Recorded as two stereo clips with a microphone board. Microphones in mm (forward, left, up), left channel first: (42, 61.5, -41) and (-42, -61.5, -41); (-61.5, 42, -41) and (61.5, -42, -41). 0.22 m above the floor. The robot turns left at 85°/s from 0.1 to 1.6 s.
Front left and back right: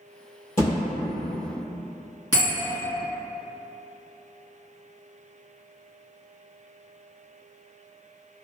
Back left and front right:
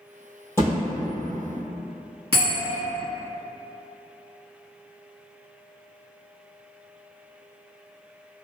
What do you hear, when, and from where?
0.6 s a thud: 75° left, 1.6 m; by 0.8 s 60° left, 1.6 m
2.3 s a bell: straight ahead, 1.9 m